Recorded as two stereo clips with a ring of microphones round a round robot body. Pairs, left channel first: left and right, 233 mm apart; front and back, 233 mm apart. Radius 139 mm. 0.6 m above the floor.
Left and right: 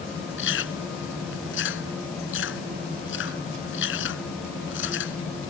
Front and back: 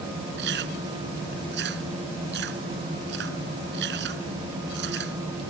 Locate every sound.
0.4 s chewing: 130° left